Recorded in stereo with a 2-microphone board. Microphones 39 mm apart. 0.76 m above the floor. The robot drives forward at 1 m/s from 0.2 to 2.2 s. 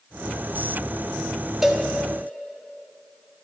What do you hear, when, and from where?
1.6 s a cowbell: 10° right (ahead or behind), 1.1 m